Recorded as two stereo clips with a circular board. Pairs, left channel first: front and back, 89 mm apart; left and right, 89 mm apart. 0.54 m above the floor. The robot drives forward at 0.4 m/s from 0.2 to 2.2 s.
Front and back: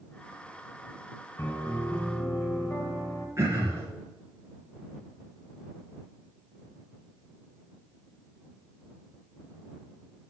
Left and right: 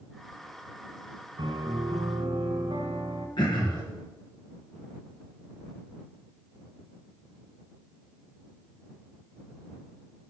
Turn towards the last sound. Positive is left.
turn(degrees=120)